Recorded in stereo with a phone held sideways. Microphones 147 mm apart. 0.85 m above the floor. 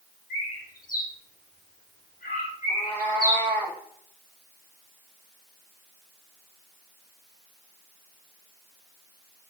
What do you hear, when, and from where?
0.3 s a bird: 75° left (ahead or behind), 1.0 m
2.7 s a cat meowing: 35° left (ahead or behind), 2.5 m